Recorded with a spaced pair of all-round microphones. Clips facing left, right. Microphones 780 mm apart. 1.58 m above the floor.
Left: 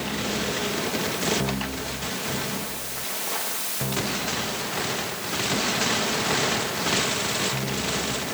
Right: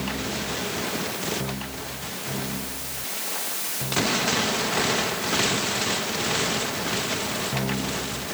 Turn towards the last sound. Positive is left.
No sound to turn to.